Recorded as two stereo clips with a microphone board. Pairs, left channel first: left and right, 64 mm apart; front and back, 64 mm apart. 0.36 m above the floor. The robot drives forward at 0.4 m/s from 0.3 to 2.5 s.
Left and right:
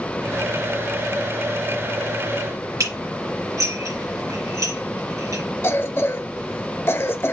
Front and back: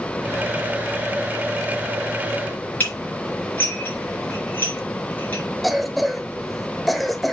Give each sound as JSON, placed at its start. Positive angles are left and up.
{"t": 2.8, "sound": "dishes clattering", "azimuth_deg": -65, "distance_m": 3.5}
{"t": 5.6, "sound": "a cough", "azimuth_deg": 90, "distance_m": 1.0}